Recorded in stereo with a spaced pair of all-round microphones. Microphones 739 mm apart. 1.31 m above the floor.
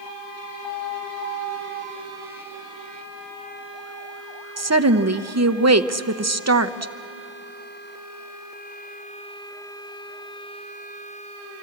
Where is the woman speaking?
20° right (ahead or behind), 0.8 m.